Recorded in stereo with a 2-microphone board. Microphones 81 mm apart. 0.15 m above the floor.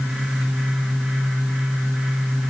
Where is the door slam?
No door slam in this recording.